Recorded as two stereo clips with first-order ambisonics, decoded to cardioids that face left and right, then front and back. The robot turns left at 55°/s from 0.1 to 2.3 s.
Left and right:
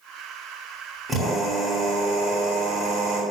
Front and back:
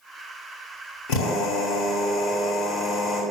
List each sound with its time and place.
1.1 s a drill: 10° right, 2.5 m; by 3.2 s 80° right, 2.5 m